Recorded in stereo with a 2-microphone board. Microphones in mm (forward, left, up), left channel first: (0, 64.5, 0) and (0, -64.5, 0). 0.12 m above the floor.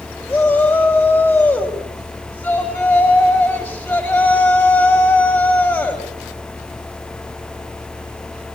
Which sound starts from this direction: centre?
A shout, at 0.3 s.